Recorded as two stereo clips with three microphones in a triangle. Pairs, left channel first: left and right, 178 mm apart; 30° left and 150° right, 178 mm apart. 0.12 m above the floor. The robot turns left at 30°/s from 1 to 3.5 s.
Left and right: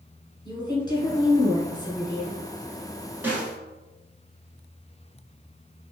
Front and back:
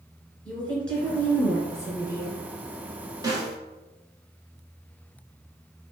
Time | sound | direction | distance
0.5 | a woman speaking | 105° left | 1.1 m
3.2 | a snare drum | 145° right | 0.9 m